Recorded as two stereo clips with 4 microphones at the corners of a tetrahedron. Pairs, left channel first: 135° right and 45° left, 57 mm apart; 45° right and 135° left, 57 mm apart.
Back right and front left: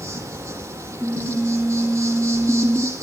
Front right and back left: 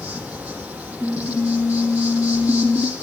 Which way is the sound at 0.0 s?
65° left.